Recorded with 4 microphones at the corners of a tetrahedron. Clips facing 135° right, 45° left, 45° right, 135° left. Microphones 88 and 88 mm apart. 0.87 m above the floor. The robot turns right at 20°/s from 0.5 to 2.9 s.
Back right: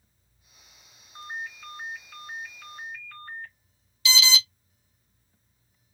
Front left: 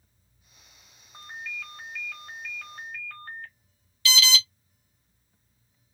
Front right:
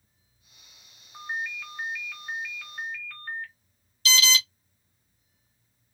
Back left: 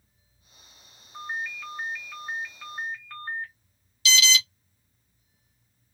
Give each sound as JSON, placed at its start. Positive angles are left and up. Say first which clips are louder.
{"t": 1.1, "sound": "a ringtone", "louder": "back right 2 dB, even", "azimuth_deg": 35, "distance_m": 1.4}
{"t": 4.0, "sound": "an alarm", "louder": "even, back left 1 dB", "azimuth_deg": -70, "distance_m": 0.8}